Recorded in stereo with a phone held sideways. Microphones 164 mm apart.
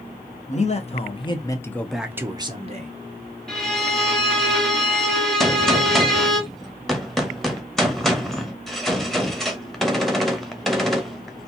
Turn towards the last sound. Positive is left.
turn(degrees=0)  # may be behind; listen again after turning